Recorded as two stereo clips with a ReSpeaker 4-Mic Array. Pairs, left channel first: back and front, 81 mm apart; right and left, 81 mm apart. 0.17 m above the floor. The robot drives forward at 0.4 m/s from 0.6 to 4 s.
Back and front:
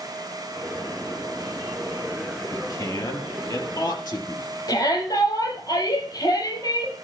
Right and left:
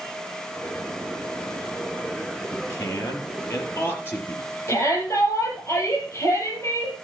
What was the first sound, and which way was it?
A man speaking, 145° right.